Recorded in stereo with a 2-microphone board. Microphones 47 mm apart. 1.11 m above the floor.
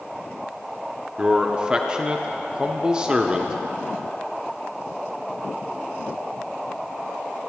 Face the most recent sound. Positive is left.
turn(degrees=-20)  # may be behind; listen again after turning